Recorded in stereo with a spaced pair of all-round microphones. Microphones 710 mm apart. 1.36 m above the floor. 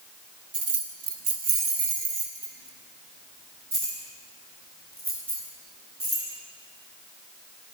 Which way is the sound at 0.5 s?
60° right (ahead or behind).